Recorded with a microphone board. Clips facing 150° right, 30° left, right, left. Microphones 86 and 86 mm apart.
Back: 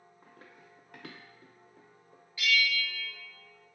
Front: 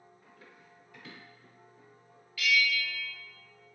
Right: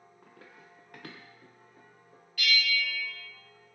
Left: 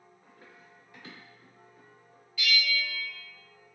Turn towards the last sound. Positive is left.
turn(degrees=-90)